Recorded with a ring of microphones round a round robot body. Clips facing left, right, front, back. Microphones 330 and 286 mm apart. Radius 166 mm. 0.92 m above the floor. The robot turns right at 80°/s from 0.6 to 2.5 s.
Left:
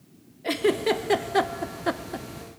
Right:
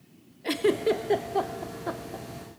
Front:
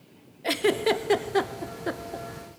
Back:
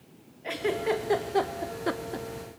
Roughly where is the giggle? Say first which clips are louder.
Left 1 dB, front 4 dB; ahead.